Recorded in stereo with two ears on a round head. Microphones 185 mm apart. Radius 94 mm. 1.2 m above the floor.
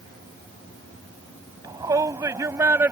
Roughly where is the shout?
Centre.